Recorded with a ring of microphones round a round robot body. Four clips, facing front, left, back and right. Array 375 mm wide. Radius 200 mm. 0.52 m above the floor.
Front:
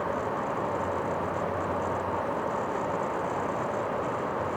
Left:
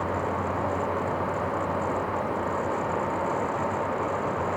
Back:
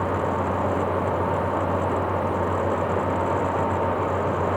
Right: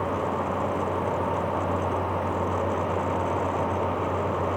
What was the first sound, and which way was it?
Only background noise.